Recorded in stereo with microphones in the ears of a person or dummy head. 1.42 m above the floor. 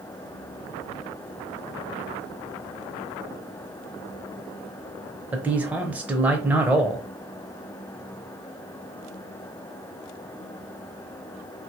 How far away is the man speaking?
About 0.7 m.